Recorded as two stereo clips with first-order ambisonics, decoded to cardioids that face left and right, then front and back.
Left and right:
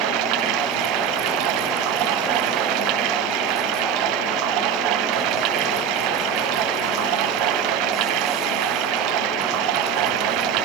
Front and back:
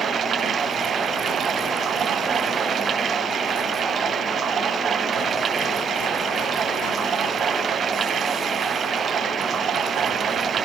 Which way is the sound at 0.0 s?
120° right.